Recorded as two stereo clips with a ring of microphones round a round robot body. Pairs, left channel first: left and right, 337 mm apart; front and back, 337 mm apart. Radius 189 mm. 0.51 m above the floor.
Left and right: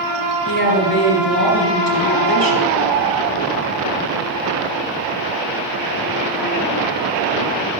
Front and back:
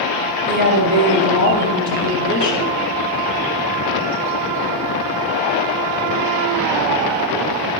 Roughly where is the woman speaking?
Behind left.